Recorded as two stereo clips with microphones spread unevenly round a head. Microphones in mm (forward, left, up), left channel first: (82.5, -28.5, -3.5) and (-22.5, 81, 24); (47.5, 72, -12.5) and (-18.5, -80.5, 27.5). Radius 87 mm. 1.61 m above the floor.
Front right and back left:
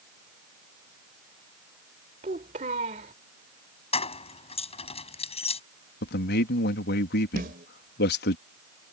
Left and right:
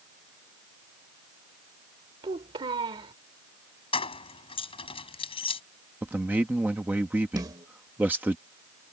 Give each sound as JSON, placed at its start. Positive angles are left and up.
{"t": 2.2, "sound": "a child speaking", "azimuth_deg": -175}
{"t": 3.9, "sound": "keys jangling", "azimuth_deg": 5}
{"t": 6.0, "sound": "a man speaking", "azimuth_deg": -35}
{"t": 7.4, "sound": "a snare drum", "azimuth_deg": 180}